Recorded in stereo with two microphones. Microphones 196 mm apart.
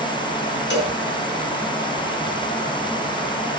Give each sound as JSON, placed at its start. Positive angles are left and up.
{"t": 0.7, "sound": "a cowbell", "side_deg": 65, "distance_m": 3.0}